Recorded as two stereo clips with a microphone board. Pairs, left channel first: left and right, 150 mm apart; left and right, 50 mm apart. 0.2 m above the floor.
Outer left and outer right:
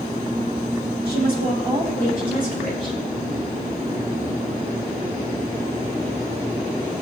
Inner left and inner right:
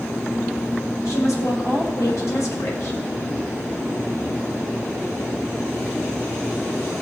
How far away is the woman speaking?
About 5.5 m.